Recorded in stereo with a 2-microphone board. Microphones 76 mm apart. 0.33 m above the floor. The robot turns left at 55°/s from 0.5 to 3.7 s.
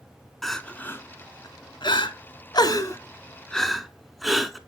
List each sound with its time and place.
0.4 s crying: 5° left (ahead or behind), 0.5 m; by 4.6 s centre (ahead or behind), 0.5 m